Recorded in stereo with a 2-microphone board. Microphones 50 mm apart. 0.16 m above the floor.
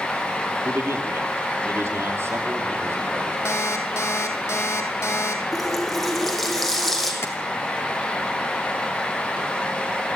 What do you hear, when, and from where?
0.7 s a man speaking: 55° right (ahead or behind), 4 m; by 3.4 s 50° right (ahead or behind), 6.5 m
3.5 s an alarm clock: 70° left (ahead or behind), 3.5 m
5.5 s a running tap: 5° left (ahead or behind), 5 m
7.2 s tapping: 55° left (ahead or behind), 3 m